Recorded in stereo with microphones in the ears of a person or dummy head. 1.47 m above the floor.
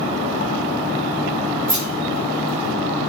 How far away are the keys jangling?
About 1.1 m.